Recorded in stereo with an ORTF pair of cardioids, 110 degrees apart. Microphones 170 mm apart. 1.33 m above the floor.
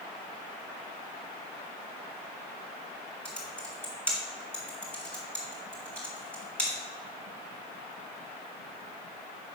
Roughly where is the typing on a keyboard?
Ahead.